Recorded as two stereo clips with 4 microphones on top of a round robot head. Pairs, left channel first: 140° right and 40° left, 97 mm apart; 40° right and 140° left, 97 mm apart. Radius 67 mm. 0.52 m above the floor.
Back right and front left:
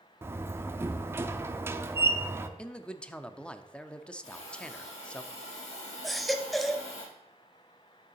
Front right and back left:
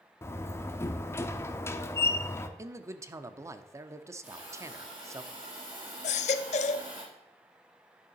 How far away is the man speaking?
About 0.7 m.